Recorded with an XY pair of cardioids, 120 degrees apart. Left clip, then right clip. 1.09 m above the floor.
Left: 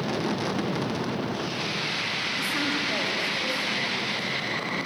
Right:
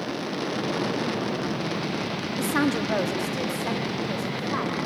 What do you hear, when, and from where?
2.4 s a woman speaking: 45° right, 1.3 m; by 4.8 s 60° right, 5 m